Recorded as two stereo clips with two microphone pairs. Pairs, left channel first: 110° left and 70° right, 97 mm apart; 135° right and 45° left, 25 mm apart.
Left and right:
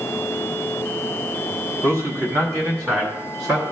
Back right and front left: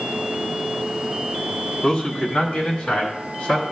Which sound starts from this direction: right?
A man speaking, at 1.8 s.